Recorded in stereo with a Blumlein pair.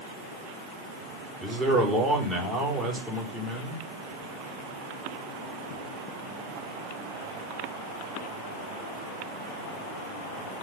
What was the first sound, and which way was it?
A man speaking, 5° right.